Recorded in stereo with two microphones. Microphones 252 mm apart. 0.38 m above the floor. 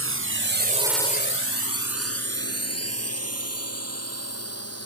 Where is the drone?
60° right (ahead or behind); by 4.9 s 70° left (ahead or behind).